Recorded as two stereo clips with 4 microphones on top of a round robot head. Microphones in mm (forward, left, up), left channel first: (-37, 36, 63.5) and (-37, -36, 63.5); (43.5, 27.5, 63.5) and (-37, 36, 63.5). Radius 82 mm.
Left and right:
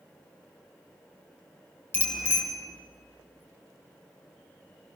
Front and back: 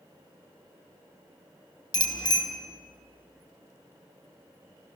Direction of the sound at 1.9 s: 25° left.